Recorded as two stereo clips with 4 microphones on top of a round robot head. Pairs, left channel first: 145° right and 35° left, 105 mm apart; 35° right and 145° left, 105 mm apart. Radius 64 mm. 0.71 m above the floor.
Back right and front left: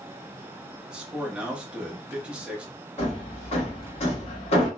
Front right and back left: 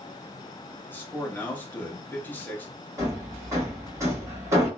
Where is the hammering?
155° right, 1.2 m.